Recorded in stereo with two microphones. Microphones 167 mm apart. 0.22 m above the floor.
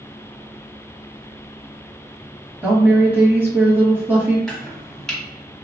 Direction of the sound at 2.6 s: 10° right (ahead or behind).